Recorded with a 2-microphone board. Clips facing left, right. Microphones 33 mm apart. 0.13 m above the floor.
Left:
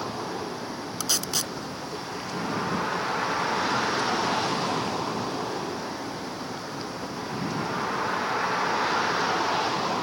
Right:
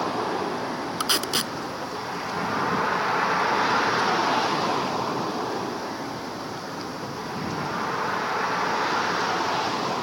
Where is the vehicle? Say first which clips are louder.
Right 6 dB; 25° right (ahead or behind); by 10.0 s centre (ahead or behind).